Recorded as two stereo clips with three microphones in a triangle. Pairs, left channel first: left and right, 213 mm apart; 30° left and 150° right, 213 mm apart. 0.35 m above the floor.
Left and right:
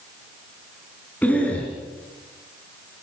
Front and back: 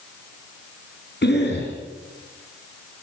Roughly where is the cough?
Ahead.